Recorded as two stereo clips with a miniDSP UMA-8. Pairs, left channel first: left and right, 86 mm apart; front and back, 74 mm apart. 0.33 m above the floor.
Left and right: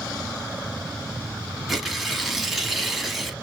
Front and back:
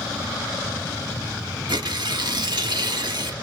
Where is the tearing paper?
Straight behind, 0.8 m.